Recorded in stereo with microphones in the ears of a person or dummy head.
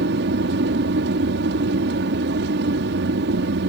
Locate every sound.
0.0 s an aircraft: 65° right (ahead or behind)